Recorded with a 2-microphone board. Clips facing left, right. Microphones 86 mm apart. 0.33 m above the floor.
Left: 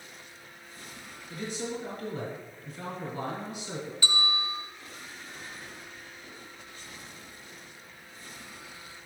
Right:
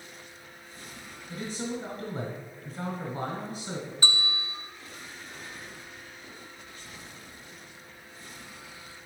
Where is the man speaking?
40° right (ahead or behind), 1.9 m.